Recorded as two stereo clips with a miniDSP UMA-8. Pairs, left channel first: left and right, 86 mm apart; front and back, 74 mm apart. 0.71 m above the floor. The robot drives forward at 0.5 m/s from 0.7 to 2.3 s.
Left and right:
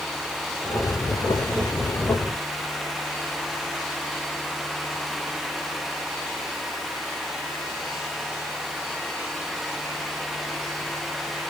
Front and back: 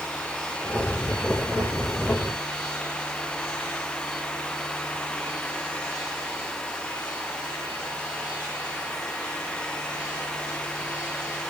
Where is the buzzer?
No buzzer in this recording.